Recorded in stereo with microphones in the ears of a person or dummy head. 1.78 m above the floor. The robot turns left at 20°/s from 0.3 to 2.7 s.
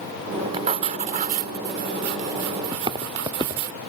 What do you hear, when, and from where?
0.5 s writing: 35° right; by 3.7 s 80° right
2.7 s footsteps: 25° right (ahead or behind)